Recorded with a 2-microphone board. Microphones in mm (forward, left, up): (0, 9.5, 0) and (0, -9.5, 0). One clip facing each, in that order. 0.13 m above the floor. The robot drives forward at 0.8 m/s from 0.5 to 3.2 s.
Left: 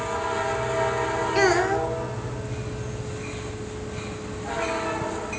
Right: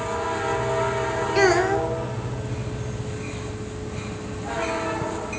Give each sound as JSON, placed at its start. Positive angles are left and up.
{"t": 1.4, "sound": "a child speaking", "side_deg": -5, "distance_m": 0.7}